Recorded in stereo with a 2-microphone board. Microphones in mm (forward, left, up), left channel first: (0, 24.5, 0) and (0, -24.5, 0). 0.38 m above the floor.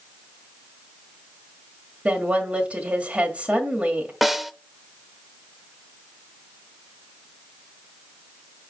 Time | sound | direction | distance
2.0 | a woman speaking | 25° right (ahead or behind) | 1.7 m
4.2 | a snare drum | 5° right (ahead or behind) | 0.5 m